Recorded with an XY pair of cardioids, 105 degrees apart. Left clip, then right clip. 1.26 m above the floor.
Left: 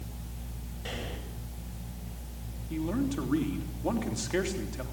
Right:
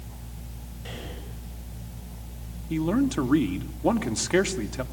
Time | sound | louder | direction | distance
0.8 | breathing | left 1 dB | 25° left | 7.5 m
2.7 | a man speaking | right 7 dB | 45° right | 3 m